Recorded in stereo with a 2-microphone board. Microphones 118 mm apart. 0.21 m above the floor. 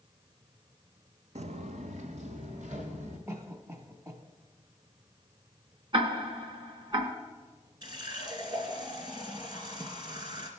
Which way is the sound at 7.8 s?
45° right (ahead or behind).